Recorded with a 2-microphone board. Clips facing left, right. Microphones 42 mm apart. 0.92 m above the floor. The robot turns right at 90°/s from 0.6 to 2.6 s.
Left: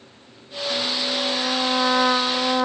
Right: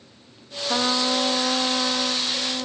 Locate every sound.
0.7 s a trumpet: 70° right; by 2.7 s 100° left